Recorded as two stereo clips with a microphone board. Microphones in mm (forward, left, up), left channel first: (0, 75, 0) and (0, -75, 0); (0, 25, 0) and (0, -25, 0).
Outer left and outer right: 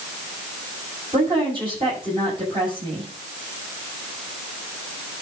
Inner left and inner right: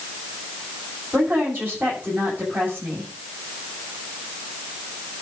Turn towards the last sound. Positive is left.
turn(degrees=-35)  # may be behind; listen again after turning